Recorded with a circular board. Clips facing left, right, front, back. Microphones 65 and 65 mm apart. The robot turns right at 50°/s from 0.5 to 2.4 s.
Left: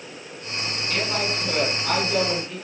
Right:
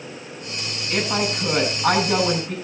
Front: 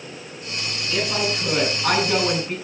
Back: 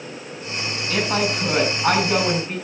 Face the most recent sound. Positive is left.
turn(degrees=-90)